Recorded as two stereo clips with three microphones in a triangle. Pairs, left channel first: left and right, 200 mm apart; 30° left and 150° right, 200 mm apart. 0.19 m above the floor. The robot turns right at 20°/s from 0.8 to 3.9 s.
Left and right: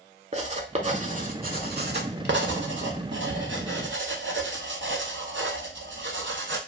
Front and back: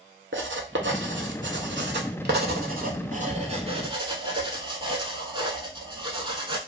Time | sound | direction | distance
0.3 | writing | 145° right | 0.5 m